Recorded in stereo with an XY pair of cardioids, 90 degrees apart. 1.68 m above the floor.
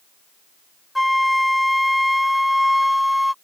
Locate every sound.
0.9 s a flute: 5° left